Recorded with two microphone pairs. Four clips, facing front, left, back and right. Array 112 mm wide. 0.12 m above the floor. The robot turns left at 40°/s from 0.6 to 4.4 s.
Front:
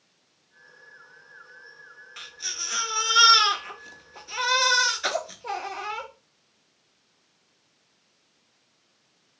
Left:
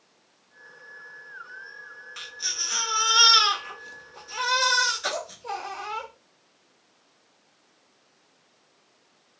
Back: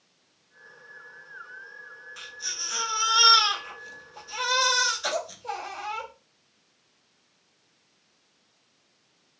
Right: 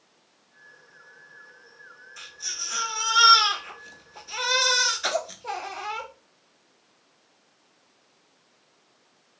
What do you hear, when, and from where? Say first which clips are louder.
2.2 s a baby crying: left 3 dB, front 2 dB; 60° left, 0.8 m; by 6.1 s 30° right, 0.8 m